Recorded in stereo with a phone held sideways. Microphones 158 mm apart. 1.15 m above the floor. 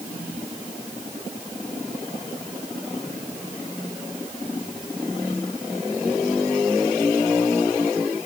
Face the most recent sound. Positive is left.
No sound to turn to.